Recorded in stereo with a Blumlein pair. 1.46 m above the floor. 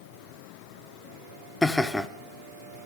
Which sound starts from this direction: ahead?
Laughter, at 1.6 s.